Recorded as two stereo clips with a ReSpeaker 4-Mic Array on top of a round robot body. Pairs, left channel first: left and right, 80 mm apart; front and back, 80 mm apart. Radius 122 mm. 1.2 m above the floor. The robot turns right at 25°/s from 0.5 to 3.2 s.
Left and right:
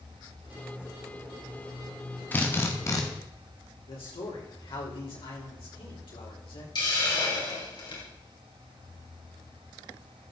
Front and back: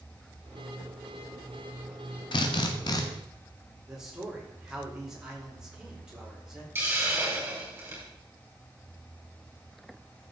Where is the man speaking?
95° left, 4 m.